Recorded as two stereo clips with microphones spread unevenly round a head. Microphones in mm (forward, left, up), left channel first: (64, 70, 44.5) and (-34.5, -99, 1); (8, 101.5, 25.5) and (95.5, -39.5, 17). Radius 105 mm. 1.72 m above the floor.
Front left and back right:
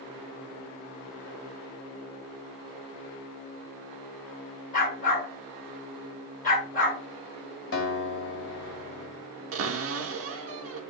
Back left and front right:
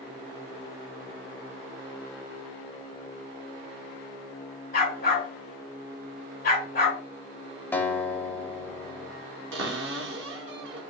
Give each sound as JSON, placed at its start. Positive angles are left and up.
{"t": 4.7, "sound": "a dog barking", "azimuth_deg": 100, "distance_m": 2.0}
{"t": 7.7, "sound": "a guitar", "azimuth_deg": 40, "distance_m": 1.6}
{"t": 9.5, "sound": "a cupboard door", "azimuth_deg": -95, "distance_m": 0.8}